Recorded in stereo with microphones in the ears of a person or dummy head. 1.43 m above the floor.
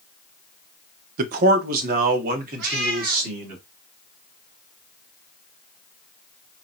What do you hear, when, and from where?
1.2 s a man speaking: 55° right (ahead or behind), 0.7 m
2.6 s a cat meowing: 60° right (ahead or behind), 2.5 m